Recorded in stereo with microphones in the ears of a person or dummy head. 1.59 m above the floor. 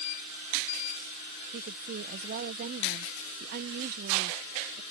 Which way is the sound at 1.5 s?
50° right (ahead or behind).